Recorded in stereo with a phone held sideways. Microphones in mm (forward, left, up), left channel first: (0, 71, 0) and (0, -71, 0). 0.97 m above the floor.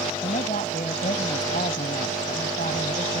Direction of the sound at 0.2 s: 70° left (ahead or behind).